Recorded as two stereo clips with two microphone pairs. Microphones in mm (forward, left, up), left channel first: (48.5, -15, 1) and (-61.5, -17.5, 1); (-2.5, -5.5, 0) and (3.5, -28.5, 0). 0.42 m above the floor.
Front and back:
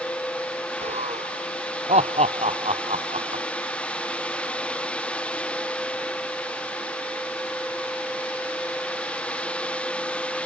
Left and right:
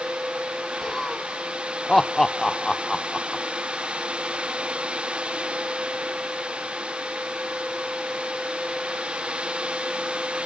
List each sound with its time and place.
0.8 s laughter: 175° left